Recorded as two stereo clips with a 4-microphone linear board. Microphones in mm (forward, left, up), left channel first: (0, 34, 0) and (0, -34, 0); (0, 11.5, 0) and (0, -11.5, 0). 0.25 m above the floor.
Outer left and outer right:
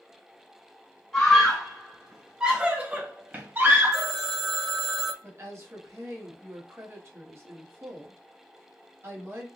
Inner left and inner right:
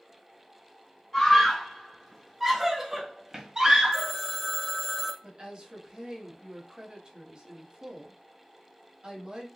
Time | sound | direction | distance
1.1 | a scream | 10° left (ahead or behind) | 1.3 m
3.9 | a phone ringing | centre (ahead or behind) | 0.6 m
5.2 | a woman speaking | 40° right (ahead or behind) | 1.2 m